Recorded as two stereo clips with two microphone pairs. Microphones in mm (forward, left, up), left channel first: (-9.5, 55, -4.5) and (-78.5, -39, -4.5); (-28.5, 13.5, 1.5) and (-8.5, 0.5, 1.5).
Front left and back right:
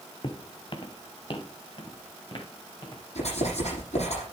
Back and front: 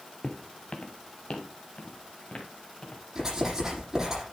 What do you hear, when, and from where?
0.2 s footsteps: 100° left, 1.2 m; by 3.0 s 105° left, 4.5 m
3.1 s writing: 30° left, 8 m